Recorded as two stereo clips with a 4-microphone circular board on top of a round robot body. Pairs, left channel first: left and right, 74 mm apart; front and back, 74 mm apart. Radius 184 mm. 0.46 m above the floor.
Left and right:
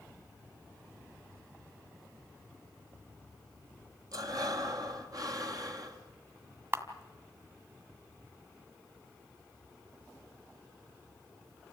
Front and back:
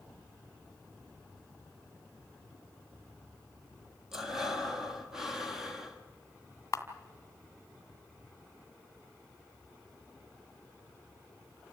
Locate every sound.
4.1 s breathing: 95° right, 2 m
6.7 s a camera shutter: 45° right, 2 m